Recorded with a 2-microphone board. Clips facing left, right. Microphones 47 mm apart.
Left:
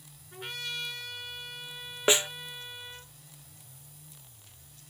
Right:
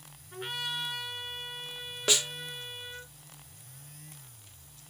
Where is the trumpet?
15° right (ahead or behind), 3.5 m.